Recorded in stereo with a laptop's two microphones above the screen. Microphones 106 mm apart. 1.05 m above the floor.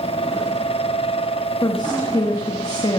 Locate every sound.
0.0 s a fan: 55° left (ahead or behind), 0.9 m
1.6 s a woman speaking: 35° left (ahead or behind), 1.3 m